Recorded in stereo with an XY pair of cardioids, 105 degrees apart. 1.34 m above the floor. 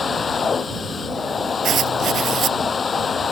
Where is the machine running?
35° left.